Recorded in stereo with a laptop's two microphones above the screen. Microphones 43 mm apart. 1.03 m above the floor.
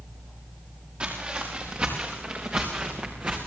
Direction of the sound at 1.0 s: 30° right (ahead or behind).